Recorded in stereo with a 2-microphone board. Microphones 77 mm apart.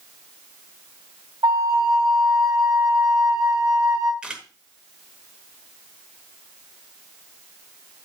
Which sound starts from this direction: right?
A flute, at 1.4 s.